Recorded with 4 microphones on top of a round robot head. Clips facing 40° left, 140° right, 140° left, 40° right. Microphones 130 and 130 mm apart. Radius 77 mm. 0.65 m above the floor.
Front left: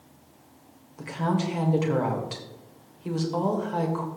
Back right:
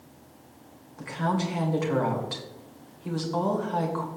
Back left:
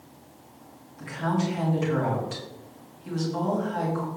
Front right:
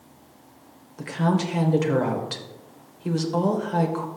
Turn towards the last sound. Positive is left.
turn(degrees=-35)